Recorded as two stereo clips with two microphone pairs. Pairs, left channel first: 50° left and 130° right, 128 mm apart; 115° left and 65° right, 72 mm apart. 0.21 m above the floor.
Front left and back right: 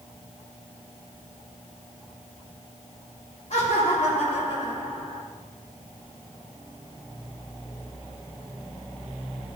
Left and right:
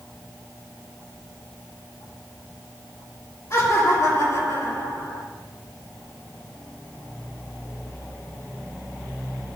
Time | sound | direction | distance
3.5 | laughter | 70° left | 5 m